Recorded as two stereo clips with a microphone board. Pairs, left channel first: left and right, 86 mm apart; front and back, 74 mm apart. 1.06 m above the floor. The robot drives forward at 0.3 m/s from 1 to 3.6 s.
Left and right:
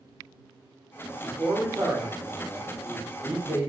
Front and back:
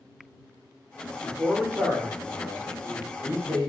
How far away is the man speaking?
About 1.0 m.